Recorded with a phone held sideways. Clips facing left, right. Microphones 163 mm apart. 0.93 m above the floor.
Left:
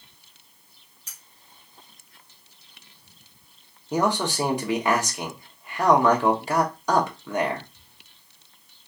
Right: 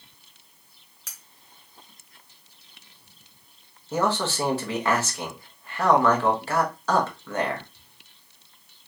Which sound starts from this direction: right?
Cutlery clinking, at 1.1 s.